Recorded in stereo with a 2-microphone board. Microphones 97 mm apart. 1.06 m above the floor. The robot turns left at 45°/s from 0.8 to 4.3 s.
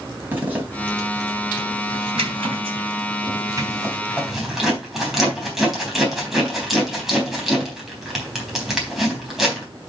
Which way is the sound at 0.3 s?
20° right (ahead or behind).